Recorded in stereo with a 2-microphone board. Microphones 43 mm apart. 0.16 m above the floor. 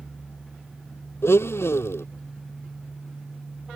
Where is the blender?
75° left (ahead or behind).